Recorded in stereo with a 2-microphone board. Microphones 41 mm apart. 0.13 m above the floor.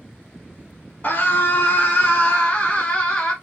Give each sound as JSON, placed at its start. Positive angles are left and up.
{"t": 1.0, "sound": "a scream", "side_deg": 35, "distance_m": 1.4}